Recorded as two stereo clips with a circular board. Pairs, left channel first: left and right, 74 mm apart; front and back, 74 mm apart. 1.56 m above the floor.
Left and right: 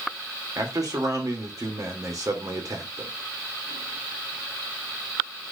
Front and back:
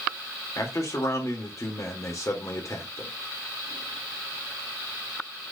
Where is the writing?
I don't hear writing.